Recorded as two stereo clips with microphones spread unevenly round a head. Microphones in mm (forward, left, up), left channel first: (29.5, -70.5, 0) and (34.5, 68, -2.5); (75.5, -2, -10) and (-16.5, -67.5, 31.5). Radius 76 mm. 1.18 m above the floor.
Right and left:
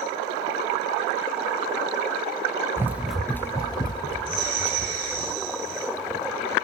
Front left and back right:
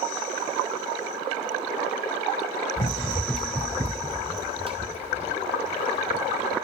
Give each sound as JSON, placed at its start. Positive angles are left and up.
{"t": 2.8, "sound": "running footsteps", "azimuth_deg": 35, "distance_m": 1.2}